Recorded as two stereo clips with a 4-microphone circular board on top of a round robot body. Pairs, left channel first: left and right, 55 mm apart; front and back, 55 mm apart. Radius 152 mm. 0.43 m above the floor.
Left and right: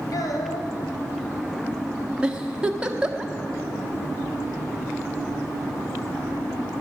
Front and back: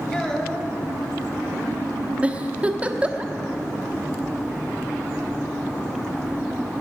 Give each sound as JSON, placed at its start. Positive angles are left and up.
{"t": 0.1, "sound": "a child speaking", "azimuth_deg": 75, "distance_m": 2.5}
{"t": 2.2, "sound": "a giggle", "azimuth_deg": -145, "distance_m": 1.3}